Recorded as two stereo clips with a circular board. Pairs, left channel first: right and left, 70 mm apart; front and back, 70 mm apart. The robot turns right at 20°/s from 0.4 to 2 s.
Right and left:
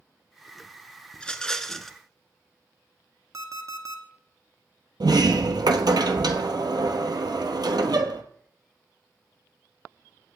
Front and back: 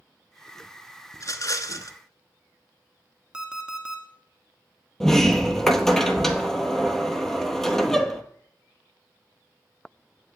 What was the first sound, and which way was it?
A rattle, 20° right.